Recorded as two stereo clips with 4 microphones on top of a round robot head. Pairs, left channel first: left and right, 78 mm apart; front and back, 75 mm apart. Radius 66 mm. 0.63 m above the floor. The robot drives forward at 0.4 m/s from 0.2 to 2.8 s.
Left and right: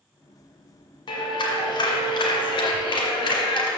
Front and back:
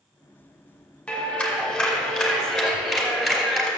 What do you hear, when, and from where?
1.1 s a clap: 80° left, 2.5 m; by 3.7 s 95° left, 2.5 m